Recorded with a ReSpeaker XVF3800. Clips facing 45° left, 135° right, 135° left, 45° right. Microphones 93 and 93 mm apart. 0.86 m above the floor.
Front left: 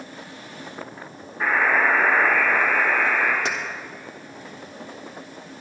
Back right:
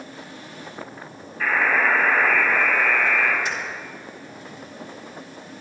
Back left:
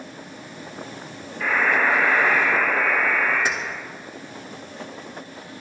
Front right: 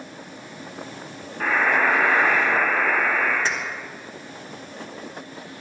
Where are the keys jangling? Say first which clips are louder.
Front left 1 dB, back left 1 dB; 60° left, 1.5 m.